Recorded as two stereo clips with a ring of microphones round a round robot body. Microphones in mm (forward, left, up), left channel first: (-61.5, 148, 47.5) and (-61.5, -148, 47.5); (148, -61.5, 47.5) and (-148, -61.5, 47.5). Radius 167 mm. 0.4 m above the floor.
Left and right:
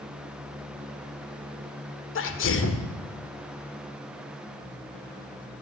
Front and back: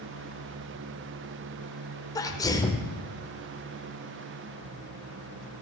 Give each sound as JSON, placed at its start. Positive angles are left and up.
{"t": 2.1, "sound": "a sneeze", "azimuth_deg": 75, "distance_m": 1.4}